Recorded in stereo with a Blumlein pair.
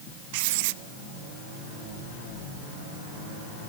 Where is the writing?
50° right, 0.7 m.